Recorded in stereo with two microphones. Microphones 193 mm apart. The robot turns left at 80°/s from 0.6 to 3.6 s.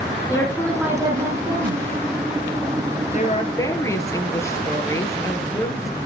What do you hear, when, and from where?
0.3 s a woman speaking: 15° left, 5.5 m; by 1.8 s 85° right, 5.5 m
3.1 s a woman speaking: 55° left, 2.5 m; by 6.0 s 20° left, 2.5 m